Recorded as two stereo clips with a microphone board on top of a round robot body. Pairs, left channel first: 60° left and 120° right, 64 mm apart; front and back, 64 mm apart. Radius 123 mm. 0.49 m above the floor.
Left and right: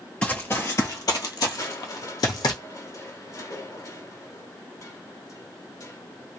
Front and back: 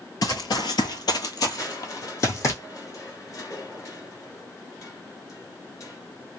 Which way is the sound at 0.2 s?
15° right.